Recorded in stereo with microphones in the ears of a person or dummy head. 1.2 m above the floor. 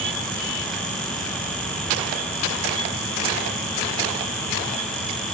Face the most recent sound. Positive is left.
No sound to turn to.